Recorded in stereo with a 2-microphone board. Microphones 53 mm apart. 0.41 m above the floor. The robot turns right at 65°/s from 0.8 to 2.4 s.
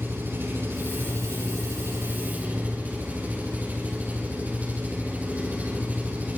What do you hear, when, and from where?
0.0 s an engine running: 135° right, 7 m; by 6.4 s 30° right, 7 m